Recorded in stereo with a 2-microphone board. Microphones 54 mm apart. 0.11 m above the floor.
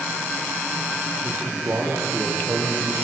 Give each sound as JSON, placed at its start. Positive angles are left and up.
{"t": 1.2, "sound": "a man speaking", "side_deg": -55, "distance_m": 3.0}